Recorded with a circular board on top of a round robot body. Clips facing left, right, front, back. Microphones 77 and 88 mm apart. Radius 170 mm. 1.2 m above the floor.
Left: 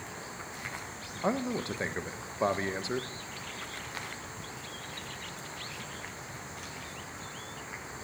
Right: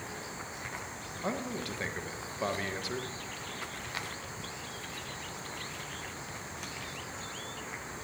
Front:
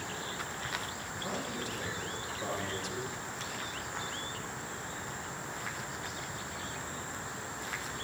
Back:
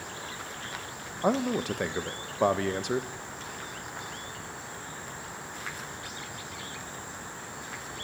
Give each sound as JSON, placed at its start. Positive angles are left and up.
{"t": 1.2, "sound": "a man speaking", "azimuth_deg": 155, "distance_m": 1.5}